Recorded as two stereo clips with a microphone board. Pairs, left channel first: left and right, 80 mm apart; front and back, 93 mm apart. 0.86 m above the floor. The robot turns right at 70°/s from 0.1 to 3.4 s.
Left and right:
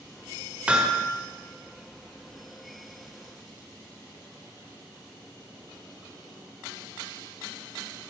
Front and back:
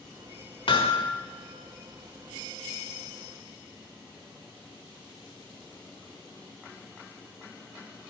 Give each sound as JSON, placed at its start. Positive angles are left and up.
{"t": 0.7, "sound": "hammering", "azimuth_deg": -15, "distance_m": 1.7}